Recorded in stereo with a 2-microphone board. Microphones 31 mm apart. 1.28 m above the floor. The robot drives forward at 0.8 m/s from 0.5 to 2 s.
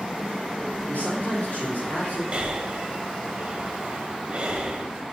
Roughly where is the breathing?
Right.